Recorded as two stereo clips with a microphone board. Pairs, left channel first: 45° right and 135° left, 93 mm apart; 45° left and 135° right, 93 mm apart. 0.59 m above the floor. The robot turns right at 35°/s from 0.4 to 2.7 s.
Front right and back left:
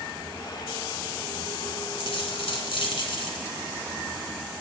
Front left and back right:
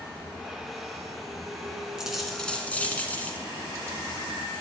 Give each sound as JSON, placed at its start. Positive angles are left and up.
{"t": 2.0, "sound": "a dropped coin", "azimuth_deg": -55, "distance_m": 1.4}